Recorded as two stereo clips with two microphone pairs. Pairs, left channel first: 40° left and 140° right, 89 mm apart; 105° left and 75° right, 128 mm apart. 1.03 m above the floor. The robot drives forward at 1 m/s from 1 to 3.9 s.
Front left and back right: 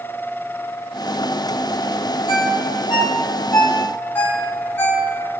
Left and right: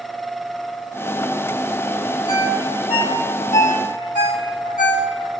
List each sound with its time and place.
2.3 s a ringtone: 55° left, 2.0 m; by 5.1 s 105° left, 1.7 m